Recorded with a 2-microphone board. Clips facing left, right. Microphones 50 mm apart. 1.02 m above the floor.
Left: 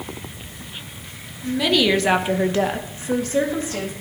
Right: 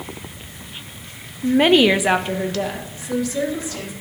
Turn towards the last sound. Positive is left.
turn(degrees=45)  # may be behind; listen again after turning